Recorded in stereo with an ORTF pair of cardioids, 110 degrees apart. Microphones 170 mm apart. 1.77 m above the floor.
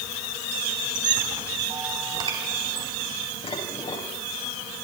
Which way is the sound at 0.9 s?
25° right.